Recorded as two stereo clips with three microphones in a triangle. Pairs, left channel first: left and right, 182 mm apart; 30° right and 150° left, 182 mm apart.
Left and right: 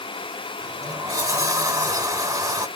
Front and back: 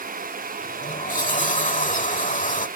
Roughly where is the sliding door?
Ahead right.